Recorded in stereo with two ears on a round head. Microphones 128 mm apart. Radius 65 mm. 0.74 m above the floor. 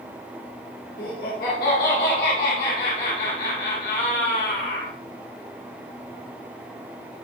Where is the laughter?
70° left (ahead or behind), 2 m.